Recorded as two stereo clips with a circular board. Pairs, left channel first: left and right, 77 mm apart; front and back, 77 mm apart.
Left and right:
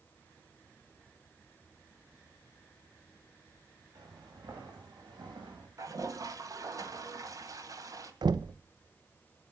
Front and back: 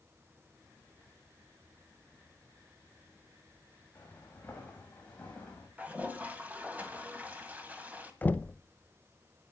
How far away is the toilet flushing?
About 1.7 m.